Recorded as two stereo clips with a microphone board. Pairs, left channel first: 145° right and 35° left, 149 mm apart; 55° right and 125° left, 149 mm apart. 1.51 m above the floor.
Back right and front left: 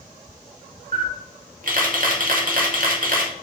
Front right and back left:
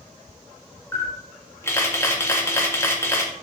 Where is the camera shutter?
15° left, 1.8 m.